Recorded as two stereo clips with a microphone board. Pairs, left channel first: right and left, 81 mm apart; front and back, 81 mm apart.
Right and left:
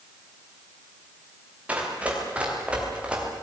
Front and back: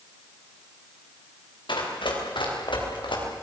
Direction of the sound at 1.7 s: 15° left.